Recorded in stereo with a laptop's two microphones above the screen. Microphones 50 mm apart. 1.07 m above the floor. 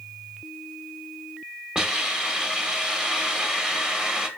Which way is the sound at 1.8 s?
15° right (ahead or behind).